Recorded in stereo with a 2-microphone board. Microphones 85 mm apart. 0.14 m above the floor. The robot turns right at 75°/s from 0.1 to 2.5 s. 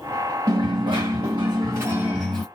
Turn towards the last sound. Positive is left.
turn(degrees=20)